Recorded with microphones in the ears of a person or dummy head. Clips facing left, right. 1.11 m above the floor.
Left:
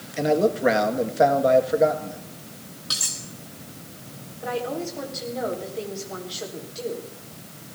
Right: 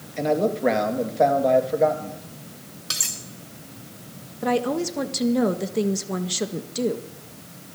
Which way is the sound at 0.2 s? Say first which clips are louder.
Left 1 dB; 5° left (ahead or behind).